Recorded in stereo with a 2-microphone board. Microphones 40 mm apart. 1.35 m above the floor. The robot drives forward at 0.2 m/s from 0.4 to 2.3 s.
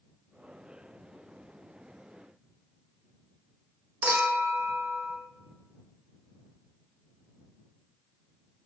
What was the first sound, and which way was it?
A clink, 40° right (ahead or behind).